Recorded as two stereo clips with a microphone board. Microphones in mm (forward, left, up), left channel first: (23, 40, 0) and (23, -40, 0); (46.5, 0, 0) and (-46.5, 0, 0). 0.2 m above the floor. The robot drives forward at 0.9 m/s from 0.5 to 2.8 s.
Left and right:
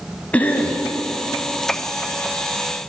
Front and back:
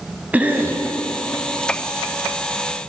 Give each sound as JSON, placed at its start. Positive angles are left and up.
{"t": 0.3, "sound": "a cough", "azimuth_deg": 130, "distance_m": 1.1}